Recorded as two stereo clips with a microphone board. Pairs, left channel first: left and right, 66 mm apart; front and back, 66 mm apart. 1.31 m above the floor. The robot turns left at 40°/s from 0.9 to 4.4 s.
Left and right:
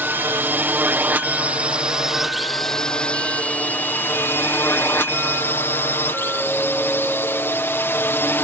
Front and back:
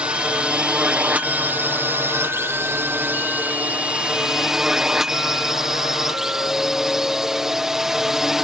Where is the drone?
120° right; by 8.4 s 100° left.